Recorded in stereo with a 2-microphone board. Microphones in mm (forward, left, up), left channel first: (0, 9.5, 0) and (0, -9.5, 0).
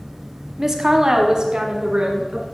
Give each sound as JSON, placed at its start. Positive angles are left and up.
{"t": 0.6, "sound": "a woman speaking", "side_deg": -20, "distance_m": 1.1}